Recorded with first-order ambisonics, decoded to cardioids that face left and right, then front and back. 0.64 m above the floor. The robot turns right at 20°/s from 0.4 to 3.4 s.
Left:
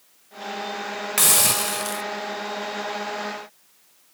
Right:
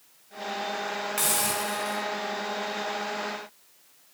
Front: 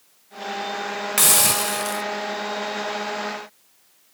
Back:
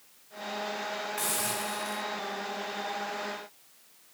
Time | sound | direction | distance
1.2 | a hiss | 30° left | 1.0 m